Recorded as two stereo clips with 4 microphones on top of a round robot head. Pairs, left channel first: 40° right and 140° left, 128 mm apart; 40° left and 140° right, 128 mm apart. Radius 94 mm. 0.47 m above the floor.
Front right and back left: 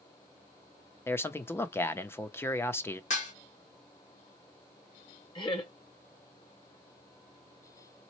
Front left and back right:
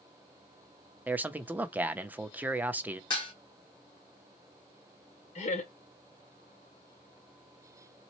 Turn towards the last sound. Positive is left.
turn(degrees=10)